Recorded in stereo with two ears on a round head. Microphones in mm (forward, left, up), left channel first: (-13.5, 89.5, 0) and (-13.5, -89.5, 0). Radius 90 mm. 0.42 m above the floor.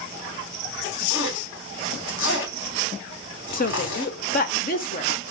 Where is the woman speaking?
45° left (ahead or behind), 1.3 m.